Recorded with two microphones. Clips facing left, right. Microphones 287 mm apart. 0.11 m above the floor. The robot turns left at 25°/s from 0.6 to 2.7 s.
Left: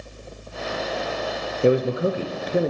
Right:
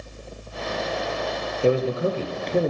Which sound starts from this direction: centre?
A man speaking, at 1.6 s.